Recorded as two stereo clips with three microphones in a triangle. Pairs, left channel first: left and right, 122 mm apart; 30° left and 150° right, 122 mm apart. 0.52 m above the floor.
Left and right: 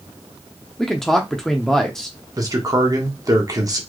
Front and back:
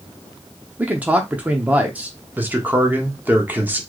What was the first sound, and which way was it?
A man speaking, 170° left.